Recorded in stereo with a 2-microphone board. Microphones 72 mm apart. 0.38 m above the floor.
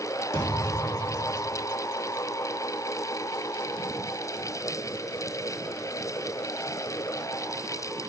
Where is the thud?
45° left (ahead or behind), 5 m.